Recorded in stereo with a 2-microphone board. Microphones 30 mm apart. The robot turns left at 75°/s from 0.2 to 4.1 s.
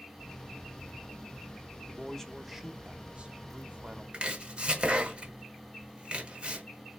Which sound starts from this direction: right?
Chopping, at 4.1 s.